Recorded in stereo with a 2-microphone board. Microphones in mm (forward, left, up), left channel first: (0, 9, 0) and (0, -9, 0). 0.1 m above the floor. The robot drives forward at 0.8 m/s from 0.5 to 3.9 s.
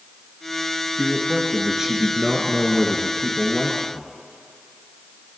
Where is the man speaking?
15° right (ahead or behind), 2 m; by 4.1 s 20° right (ahead or behind), 1.9 m.